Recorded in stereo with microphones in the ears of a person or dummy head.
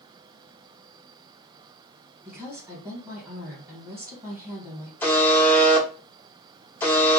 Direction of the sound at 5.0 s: 10° left (ahead or behind).